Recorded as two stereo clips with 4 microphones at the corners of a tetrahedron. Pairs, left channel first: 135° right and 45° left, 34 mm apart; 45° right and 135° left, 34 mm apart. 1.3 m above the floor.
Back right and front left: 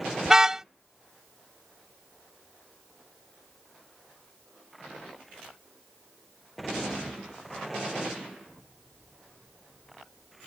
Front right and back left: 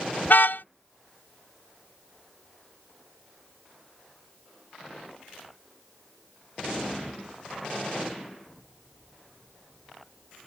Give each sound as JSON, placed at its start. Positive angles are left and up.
{"t": 0.2, "sound": "a car horn", "azimuth_deg": -30}